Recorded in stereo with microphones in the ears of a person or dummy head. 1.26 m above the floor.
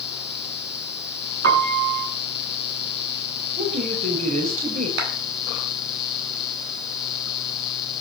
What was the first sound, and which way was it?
A piano, 65° right (ahead or behind).